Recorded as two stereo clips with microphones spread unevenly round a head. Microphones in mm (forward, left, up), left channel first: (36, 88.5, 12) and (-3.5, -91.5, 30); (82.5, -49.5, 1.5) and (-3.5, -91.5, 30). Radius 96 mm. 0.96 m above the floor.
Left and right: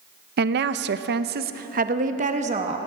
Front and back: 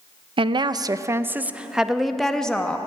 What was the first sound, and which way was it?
A woman speaking, 125° right.